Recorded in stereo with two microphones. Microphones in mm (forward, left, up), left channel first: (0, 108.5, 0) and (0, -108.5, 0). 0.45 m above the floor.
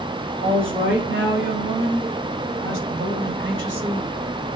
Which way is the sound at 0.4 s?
70° right (ahead or behind).